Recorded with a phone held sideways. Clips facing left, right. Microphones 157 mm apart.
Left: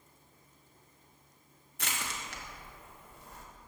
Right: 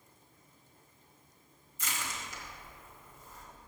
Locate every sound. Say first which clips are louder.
1.8 s crushing: left 1 dB; 70° left (ahead or behind), 1.8 m